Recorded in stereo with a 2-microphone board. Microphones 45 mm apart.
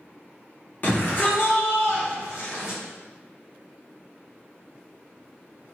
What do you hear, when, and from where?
0.8 s a shout: 40° left (ahead or behind), 1.2 m; by 2.8 s 80° left, 1.2 m